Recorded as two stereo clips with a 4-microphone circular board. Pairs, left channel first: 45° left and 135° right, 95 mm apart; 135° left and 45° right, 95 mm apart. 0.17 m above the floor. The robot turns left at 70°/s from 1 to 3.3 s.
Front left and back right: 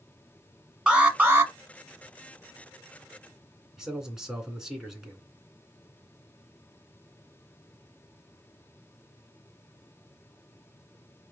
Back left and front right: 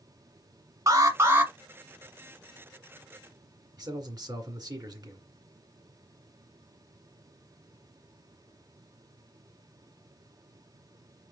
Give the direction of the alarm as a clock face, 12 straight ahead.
2 o'clock.